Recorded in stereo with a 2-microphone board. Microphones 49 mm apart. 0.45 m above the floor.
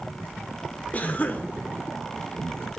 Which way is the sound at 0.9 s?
30° left (ahead or behind).